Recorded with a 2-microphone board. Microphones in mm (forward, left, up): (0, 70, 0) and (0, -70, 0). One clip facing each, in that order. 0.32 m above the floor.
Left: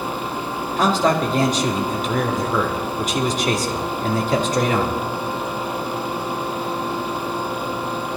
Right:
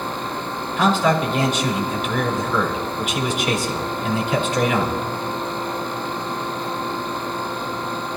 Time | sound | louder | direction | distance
0.8 | a man speaking | even | 40° left (ahead or behind) | 4 m